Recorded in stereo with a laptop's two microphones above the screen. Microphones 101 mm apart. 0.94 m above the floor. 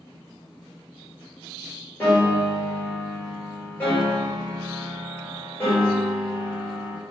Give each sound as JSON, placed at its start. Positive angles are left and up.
{"t": 2.0, "sound": "a piano", "side_deg": 20, "distance_m": 1.4}